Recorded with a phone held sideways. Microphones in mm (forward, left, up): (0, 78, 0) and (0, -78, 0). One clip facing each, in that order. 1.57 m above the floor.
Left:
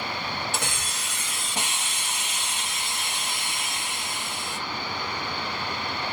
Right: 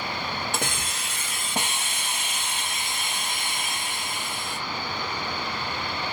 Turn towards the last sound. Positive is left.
turn(degrees=-60)  # may be behind; listen again after turning